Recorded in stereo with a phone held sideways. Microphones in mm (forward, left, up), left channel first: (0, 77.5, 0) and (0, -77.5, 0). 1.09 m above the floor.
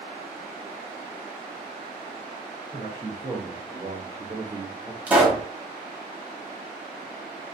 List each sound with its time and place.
2.7 s a man speaking: 20° right (ahead or behind), 1.0 m; by 5.0 s 15° right (ahead or behind), 0.7 m
5.1 s a pop: 10° right (ahead or behind), 1.0 m